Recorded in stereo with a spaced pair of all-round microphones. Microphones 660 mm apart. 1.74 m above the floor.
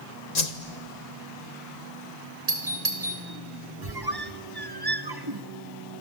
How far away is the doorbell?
About 3.5 m.